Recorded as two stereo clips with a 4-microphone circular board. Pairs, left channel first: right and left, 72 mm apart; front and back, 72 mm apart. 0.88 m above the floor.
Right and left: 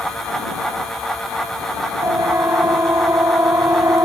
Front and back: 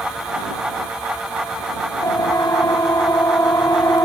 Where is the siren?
40° left; by 4.1 s 45° left.